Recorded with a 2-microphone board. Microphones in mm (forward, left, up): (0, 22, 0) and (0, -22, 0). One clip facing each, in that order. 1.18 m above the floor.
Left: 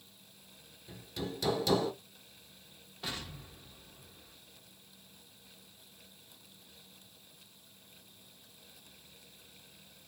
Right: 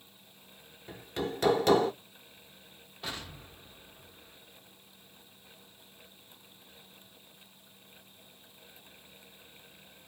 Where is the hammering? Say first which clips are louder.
Right 5 dB; 50° right (ahead or behind), 0.8 m.